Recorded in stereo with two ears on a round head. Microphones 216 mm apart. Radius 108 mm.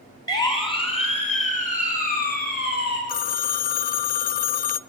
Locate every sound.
0.3 s a siren: 15° left (ahead or behind), 4.5 m; by 3.0 s 45° left (ahead or behind), 7 m
3.1 s a phone ringing: 35° left (ahead or behind), 0.5 m